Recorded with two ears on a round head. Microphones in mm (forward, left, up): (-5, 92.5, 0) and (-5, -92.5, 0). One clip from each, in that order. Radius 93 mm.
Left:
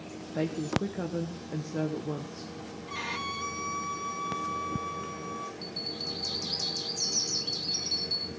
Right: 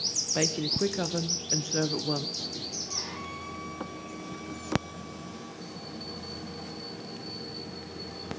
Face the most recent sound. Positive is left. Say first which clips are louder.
# left 6 dB
turn(degrees=70)  # may be behind; listen again after turning